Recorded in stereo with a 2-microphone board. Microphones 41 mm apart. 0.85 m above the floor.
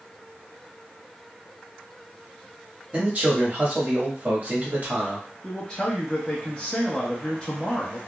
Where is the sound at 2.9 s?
40° right (ahead or behind), 1.2 m.